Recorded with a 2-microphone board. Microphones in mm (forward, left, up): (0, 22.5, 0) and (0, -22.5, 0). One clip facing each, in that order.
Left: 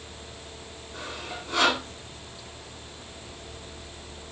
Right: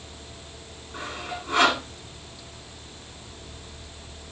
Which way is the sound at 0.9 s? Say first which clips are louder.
Right 3 dB; 30° right (ahead or behind).